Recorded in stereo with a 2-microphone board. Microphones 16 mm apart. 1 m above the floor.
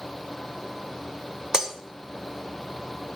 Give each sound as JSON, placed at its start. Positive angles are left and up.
{"t": 1.5, "sound": "breaking glass", "side_deg": -40, "distance_m": 1.0}